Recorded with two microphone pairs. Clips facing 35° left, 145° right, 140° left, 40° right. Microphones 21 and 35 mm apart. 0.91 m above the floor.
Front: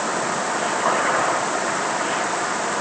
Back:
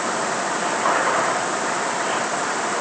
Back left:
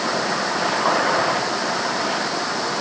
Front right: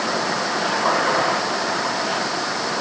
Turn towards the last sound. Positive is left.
No sound to turn to.